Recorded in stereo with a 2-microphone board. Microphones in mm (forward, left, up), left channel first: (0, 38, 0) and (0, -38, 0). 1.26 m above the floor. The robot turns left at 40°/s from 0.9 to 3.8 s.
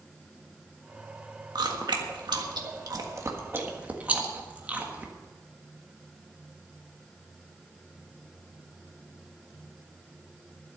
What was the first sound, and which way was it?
Chewing, 70° right (ahead or behind).